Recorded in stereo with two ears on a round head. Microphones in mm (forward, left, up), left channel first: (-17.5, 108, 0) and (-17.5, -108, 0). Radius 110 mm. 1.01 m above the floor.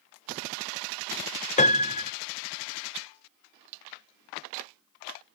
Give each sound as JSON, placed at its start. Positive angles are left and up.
{"t": 1.6, "sound": "a piano", "side_deg": 30}